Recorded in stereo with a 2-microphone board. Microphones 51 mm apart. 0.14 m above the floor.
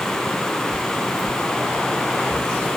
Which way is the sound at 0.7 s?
25° right (ahead or behind).